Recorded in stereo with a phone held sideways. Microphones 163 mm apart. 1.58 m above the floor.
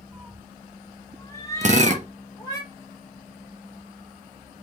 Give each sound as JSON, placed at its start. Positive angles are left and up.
{"t": 0.1, "sound": "a cat meowing", "side_deg": 5, "distance_m": 1.0}
{"t": 1.6, "sound": "a drill", "side_deg": -45, "distance_m": 0.7}